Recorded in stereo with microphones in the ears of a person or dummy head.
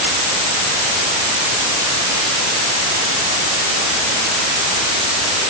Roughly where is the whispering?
I don't hear whispering.